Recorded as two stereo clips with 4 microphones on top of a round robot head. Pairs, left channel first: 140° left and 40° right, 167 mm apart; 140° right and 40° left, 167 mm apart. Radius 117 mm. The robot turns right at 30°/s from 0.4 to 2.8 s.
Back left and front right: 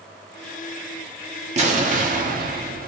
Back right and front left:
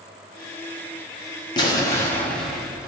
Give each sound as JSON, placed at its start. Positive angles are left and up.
{"t": 1.6, "sound": "an explosion", "azimuth_deg": -80, "distance_m": 1.5}